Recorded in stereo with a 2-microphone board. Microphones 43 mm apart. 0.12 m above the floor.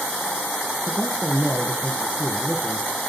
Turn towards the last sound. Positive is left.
turn(degrees=-25)  # may be behind; listen again after turning